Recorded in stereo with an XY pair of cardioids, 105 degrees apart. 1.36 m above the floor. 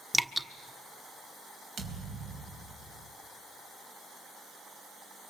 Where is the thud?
65° right, 4 m.